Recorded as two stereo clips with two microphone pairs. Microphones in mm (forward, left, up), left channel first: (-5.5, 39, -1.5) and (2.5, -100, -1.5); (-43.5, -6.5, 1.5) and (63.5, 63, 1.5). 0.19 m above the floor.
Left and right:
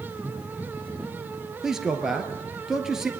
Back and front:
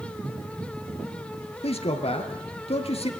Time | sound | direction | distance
1.6 | a man speaking | 175° right | 3 m